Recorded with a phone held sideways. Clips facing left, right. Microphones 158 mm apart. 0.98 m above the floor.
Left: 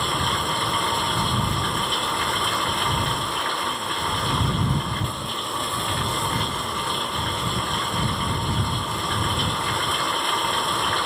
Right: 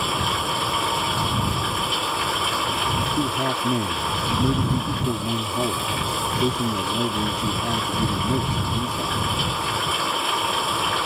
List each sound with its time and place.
0.0 s running water: 5° right (ahead or behind)
3.2 s a man speaking: 70° right (ahead or behind)